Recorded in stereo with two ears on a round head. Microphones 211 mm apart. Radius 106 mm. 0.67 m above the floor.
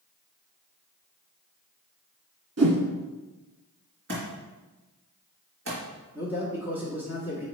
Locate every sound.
2.6 s a whoosh: 65° right (ahead or behind), 1.7 m
4.1 s a thud: 50° right (ahead or behind), 3 m
6.2 s a man speaking: 10° right (ahead or behind), 1.6 m